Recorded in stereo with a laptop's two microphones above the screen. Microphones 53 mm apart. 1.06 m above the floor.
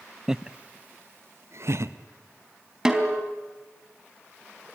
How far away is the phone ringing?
No phone ringing in this recording.